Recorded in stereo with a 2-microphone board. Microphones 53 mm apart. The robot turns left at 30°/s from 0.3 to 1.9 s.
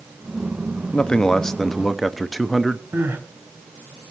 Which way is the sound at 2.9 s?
45° right (ahead or behind).